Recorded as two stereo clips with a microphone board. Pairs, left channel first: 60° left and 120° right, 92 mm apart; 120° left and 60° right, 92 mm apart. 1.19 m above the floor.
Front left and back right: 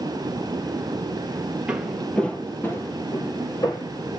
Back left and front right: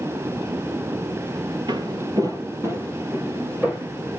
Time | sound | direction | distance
1.7 | footsteps | 45° right | 1.8 m